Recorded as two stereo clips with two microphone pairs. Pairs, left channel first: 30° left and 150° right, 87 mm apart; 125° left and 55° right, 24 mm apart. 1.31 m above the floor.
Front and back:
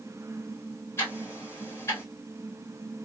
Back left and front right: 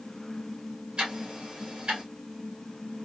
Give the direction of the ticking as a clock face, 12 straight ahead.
1 o'clock.